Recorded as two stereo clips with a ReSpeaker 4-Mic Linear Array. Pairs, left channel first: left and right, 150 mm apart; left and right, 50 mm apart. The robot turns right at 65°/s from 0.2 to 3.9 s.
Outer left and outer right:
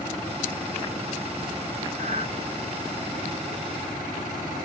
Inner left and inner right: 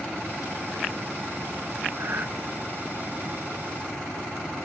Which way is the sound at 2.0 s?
65° right (ahead or behind).